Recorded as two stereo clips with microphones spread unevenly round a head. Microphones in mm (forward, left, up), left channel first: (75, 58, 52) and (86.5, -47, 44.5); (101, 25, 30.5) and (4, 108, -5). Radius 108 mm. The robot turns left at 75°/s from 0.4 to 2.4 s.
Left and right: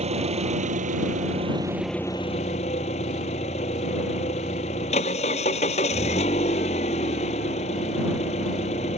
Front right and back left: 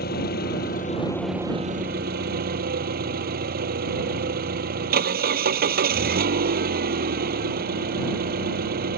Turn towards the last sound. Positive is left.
turn(degrees=145)